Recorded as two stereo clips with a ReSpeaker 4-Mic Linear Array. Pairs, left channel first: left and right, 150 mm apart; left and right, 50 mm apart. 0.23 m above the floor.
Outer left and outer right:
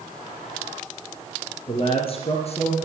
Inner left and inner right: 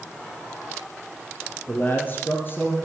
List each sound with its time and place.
1.7 s a man speaking: 35° left (ahead or behind), 3 m; by 2.8 s 45° left (ahead or behind), 3.5 m